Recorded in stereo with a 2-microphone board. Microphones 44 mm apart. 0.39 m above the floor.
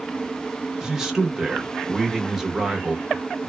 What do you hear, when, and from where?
0.8 s a man speaking: 10° right (ahead or behind), 0.8 m